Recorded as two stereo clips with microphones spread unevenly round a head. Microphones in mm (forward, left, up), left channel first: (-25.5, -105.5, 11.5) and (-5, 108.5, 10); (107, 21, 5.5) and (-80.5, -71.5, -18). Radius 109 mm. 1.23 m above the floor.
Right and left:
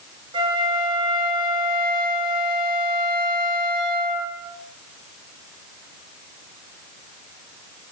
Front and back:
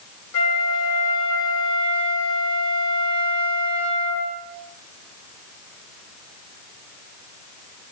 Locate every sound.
0.3 s a flute: 15° left, 3 m